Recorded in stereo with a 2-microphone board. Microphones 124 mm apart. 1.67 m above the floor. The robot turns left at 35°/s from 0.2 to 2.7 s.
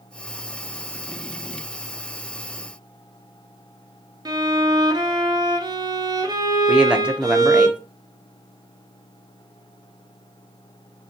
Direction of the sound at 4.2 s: 30° right (ahead or behind).